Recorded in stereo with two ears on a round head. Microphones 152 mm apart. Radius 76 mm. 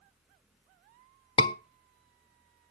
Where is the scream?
30° left (ahead or behind), 1.0 m.